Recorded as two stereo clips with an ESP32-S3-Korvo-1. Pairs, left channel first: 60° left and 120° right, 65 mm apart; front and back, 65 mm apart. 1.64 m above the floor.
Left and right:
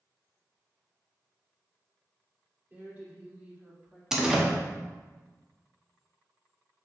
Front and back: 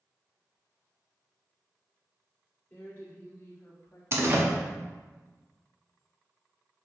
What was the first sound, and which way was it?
A woman speaking, 55° right.